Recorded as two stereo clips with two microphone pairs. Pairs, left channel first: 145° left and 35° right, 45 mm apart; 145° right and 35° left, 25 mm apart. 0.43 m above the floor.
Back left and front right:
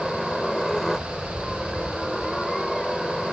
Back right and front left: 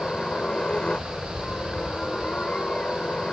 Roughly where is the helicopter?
Behind right.